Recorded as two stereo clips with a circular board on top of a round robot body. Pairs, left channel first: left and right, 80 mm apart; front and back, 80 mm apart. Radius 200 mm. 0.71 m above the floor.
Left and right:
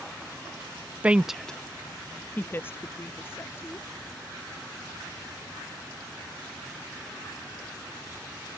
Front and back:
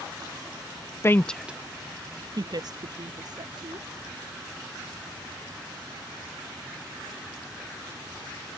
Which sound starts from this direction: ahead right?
A woman speaking, at 1.0 s.